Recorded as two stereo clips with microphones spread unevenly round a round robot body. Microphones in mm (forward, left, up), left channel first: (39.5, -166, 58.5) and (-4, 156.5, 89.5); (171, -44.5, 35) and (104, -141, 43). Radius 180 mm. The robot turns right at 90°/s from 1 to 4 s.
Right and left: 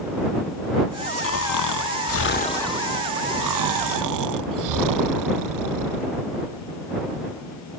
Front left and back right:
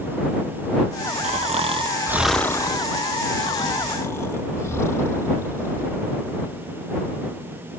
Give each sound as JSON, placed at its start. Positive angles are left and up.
{"t": 1.2, "sound": "snoring", "azimuth_deg": -125}